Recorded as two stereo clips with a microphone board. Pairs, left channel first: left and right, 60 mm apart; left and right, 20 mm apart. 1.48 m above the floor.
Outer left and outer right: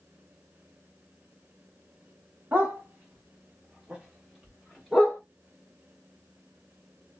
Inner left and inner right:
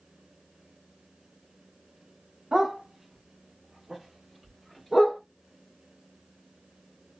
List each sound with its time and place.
2.5 s a dog barking: 30° right (ahead or behind), 1.1 m; by 5.2 s 5° right (ahead or behind), 1.8 m